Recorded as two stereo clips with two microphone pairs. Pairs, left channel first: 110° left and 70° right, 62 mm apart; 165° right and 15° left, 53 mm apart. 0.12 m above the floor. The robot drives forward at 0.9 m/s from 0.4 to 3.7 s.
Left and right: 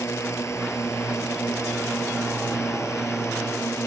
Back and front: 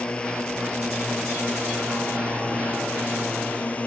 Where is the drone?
130° left; by 3.9 s 135° left.